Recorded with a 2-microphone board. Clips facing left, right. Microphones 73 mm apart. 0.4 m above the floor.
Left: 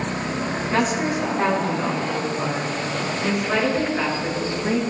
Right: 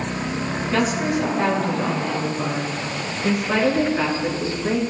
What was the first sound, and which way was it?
A woman speaking, 25° left (ahead or behind).